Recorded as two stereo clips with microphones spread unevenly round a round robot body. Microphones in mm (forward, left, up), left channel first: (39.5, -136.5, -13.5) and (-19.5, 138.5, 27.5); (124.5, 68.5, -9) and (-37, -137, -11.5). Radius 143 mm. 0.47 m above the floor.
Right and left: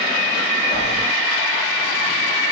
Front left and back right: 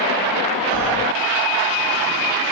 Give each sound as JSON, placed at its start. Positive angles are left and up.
{"t": 0.7, "sound": "whispering", "azimuth_deg": -100, "distance_m": 1.2}